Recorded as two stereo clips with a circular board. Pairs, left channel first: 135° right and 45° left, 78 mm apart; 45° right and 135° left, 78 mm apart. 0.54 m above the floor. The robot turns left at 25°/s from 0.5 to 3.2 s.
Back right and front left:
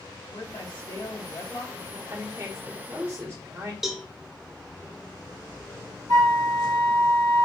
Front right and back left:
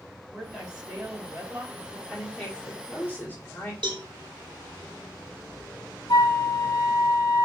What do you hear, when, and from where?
0.3 s a woman speaking: 140° right, 1.8 m; by 2.0 s straight behind, 1.8 m
2.1 s a woman speaking: 35° left, 1.5 m; by 3.7 s 10° left, 1.5 m
3.8 s a cowbell: 130° left, 0.9 m
6.1 s a flute: 5° right, 1.3 m